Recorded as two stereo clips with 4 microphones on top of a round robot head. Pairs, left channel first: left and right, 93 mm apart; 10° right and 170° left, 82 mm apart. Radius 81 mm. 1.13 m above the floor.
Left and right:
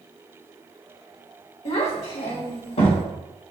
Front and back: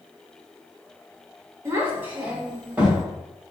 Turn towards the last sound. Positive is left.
turn(degrees=95)